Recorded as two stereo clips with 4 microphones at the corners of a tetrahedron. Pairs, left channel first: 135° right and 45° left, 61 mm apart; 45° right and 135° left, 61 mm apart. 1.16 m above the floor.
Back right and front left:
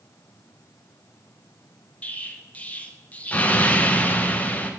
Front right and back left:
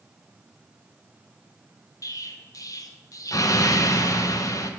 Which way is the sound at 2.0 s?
70° right.